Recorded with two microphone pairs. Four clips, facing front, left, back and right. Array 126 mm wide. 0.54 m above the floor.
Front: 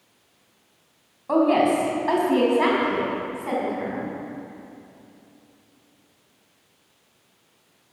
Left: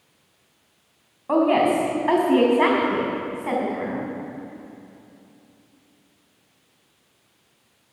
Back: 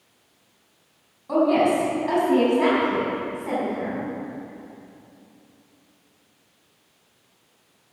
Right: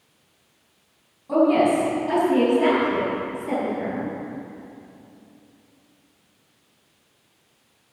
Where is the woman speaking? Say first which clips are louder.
Right 1 dB, even; 55° left, 4 m; by 4.1 s 70° left, 5 m.